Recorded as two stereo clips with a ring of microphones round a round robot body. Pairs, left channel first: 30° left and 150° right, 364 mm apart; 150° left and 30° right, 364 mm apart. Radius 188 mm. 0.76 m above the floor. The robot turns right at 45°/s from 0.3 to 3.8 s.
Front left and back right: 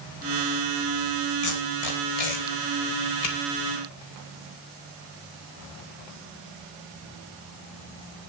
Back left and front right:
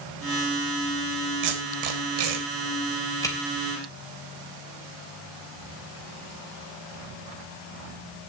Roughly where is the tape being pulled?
Ahead.